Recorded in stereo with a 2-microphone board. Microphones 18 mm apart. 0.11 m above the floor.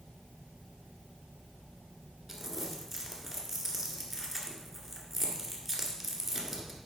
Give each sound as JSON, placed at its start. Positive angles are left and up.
{"t": 2.3, "sound": "crumpling", "side_deg": -5, "distance_m": 1.9}